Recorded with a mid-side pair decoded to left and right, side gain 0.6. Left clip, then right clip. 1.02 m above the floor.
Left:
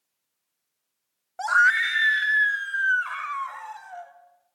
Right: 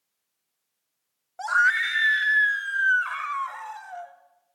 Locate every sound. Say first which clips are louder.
1.4 s a scream: left 2 dB; 20° left, 1.1 m; by 4.1 s 10° right, 5 m